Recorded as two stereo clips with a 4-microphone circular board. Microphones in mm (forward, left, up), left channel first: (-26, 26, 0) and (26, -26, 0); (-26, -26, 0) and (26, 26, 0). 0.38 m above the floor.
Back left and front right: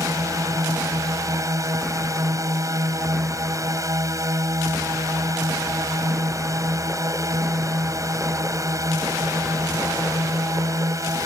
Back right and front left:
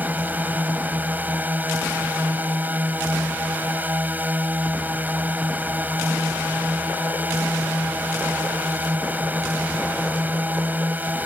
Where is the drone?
15° right.